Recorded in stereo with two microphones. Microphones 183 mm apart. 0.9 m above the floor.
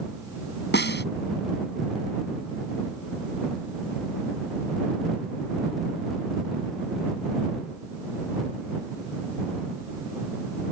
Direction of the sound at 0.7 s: 70° left (ahead or behind).